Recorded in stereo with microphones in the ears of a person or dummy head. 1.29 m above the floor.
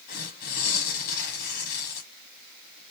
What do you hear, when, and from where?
0.1 s tearing paper: 50° left (ahead or behind), 1.2 m